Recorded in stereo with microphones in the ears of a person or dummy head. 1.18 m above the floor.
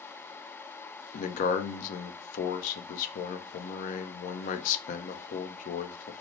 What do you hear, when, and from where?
1.1 s a man speaking: 50° left (ahead or behind), 0.6 m